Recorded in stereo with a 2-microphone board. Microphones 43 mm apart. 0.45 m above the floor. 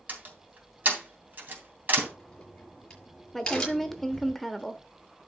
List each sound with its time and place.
0.1 s a door slam: 45° right (ahead or behind), 3 m
2.0 s a crack: 15° left (ahead or behind), 5.5 m
3.3 s a woman speaking: 5° left (ahead or behind), 1.0 m